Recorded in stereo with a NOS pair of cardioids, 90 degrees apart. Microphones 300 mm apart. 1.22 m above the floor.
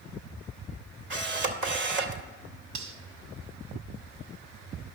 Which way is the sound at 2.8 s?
65° right.